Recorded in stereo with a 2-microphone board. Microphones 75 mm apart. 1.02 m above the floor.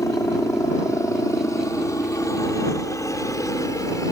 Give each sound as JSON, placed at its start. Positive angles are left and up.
{"t": 0.0, "sound": "a helicopter", "side_deg": 40}